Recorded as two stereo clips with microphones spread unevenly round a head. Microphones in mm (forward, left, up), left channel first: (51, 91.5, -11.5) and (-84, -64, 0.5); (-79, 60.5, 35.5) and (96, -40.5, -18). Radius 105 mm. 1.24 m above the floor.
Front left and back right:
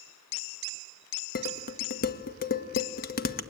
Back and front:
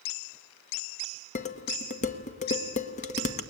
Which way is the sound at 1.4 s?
95° left.